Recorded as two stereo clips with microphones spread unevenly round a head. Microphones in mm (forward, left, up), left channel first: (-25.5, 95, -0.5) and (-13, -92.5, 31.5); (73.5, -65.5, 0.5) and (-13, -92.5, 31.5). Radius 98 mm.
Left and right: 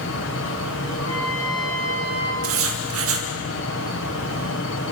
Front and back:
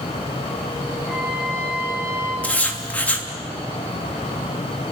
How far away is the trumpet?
About 3.5 m.